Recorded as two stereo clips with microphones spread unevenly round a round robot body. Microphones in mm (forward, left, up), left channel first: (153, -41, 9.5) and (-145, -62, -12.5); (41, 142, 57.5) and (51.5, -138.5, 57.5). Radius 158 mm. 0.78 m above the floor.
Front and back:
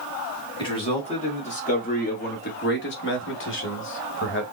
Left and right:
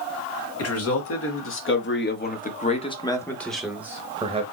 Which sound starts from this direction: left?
A man speaking, at 0.6 s.